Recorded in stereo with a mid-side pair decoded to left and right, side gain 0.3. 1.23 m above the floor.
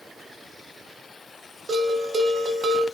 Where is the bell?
65° right, 0.7 m.